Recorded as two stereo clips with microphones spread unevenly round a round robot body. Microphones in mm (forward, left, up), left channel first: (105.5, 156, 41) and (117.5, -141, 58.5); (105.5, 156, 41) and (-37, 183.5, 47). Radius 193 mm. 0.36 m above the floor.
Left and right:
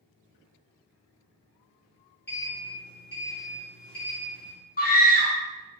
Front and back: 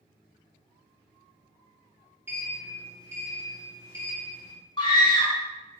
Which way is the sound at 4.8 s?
40° left.